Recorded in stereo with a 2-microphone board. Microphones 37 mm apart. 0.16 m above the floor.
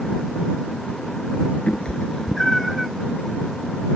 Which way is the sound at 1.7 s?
40° left (ahead or behind).